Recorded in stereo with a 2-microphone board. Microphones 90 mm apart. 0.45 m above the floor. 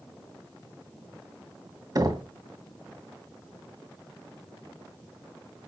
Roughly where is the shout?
No shout in this recording.